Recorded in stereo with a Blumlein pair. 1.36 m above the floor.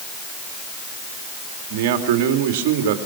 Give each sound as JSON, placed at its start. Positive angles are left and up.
{"t": 1.7, "sound": "a man speaking", "azimuth_deg": -50, "distance_m": 2.5}